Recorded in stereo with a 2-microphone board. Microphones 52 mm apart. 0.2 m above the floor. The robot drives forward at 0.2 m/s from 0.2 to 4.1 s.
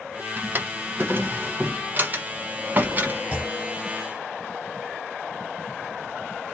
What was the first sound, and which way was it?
A drawer, 40° right (ahead or behind).